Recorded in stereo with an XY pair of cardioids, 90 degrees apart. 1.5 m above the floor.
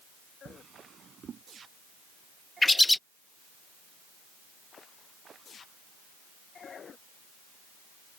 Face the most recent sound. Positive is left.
turn(degrees=15)